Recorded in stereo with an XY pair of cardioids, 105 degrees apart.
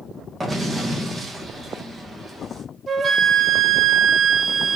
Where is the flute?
35° right, 0.6 m.